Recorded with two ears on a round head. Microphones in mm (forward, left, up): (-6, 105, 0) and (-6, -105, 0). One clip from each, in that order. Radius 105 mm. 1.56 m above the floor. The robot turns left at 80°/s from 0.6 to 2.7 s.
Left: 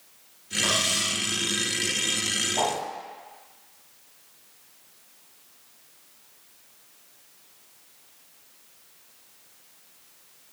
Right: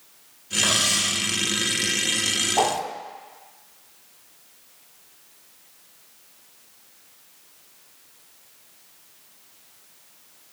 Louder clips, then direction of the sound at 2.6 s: Right 6 dB; 25° right (ahead or behind).